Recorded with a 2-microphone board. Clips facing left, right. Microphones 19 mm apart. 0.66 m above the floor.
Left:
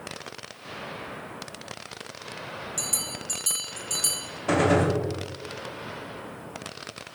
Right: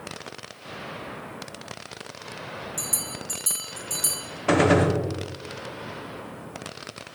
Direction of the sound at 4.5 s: 25° right (ahead or behind).